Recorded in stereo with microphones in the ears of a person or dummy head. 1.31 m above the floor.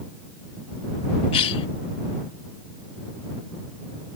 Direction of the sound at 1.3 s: 35° left (ahead or behind).